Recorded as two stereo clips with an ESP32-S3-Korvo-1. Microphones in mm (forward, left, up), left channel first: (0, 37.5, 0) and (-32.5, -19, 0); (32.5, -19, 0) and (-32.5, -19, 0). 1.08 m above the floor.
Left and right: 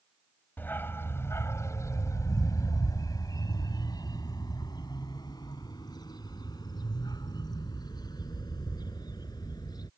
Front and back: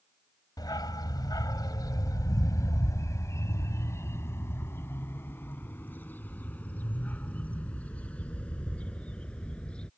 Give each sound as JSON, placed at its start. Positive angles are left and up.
{"t": 0.6, "sound": "a dog barking", "azimuth_deg": 0}